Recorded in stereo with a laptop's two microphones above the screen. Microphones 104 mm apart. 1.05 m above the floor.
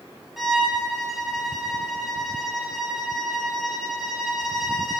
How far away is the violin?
About 4.5 m.